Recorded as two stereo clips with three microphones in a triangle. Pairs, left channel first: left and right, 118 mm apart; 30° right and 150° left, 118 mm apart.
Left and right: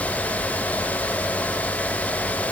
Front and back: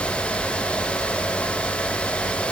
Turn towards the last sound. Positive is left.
No sound to turn to.